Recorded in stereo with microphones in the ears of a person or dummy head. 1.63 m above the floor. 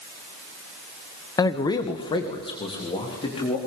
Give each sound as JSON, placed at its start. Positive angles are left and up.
{"t": 1.4, "sound": "a man speaking", "side_deg": 15, "distance_m": 1.0}